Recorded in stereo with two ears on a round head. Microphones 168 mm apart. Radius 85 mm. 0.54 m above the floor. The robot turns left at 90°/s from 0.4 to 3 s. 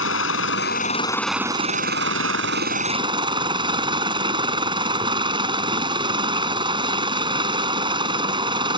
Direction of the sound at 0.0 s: 80° left.